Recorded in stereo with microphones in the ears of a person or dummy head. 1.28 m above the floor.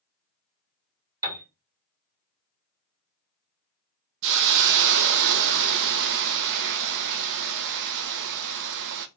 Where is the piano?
15° right (ahead or behind), 2.5 m.